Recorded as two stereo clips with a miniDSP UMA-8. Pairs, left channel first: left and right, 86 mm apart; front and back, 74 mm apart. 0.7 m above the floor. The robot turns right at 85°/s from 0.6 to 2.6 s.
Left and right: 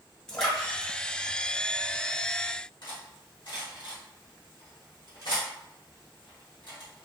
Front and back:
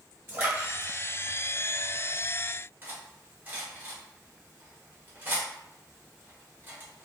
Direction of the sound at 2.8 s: 120° left.